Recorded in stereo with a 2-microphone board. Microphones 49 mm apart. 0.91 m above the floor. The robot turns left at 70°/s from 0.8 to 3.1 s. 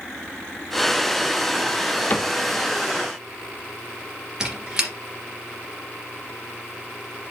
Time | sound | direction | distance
2.1 | a cupboard door | 40° left (ahead or behind) | 0.7 m
4.4 | a squeak | 15° right (ahead or behind) | 2.5 m